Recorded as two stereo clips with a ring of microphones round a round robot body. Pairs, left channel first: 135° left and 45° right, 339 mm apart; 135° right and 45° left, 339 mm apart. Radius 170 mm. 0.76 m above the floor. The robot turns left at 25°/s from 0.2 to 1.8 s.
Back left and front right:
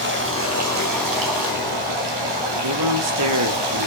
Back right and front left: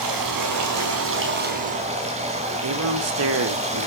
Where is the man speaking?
5° right, 2.5 m.